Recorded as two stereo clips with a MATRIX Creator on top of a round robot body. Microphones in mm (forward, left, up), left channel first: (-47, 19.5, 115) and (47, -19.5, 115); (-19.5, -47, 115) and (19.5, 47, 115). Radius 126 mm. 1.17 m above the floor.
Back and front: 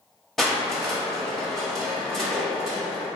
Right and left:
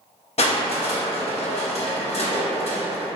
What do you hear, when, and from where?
0.4 s crushing: 115° right, 0.8 m